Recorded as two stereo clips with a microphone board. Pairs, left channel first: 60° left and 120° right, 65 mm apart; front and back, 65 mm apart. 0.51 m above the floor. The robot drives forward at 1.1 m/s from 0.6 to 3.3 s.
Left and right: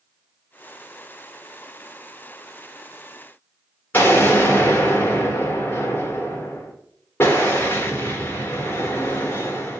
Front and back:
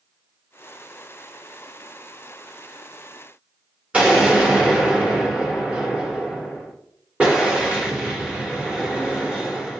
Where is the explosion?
110° left, 1.2 m.